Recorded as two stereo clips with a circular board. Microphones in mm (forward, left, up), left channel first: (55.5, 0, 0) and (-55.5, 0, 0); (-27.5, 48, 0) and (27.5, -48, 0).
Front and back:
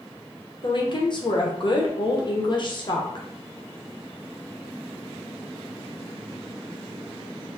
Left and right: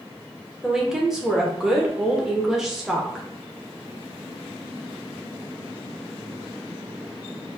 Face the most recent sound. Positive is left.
turn(degrees=25)